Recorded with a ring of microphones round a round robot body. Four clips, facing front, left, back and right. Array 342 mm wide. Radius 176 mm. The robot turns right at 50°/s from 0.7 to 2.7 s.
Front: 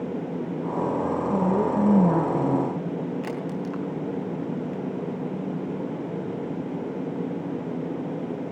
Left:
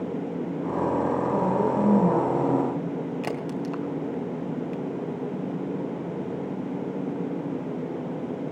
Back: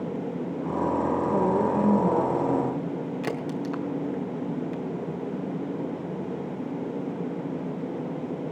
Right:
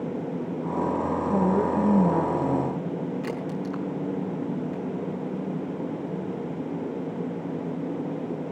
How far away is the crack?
About 3 m.